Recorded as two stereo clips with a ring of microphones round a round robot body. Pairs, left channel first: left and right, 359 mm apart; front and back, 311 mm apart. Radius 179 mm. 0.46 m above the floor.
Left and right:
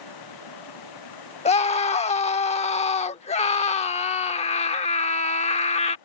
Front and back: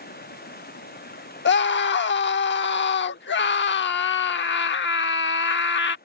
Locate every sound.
0.0 s running water: 60° left
1.4 s a scream: 25° left